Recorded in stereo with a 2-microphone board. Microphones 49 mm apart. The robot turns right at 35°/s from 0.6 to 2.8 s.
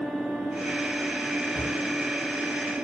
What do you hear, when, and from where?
1.5 s a cupboard door: 25° left (ahead or behind), 0.8 m